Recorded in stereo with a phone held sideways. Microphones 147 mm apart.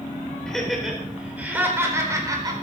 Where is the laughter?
5° left (ahead or behind), 4.5 m; by 2.5 s 25° right (ahead or behind), 4.5 m.